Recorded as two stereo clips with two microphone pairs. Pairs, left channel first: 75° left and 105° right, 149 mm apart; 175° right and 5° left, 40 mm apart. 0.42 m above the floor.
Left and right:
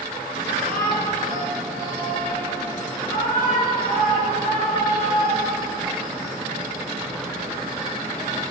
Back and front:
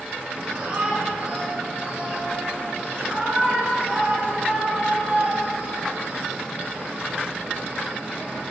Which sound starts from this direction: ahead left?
A shout, at 0.3 s.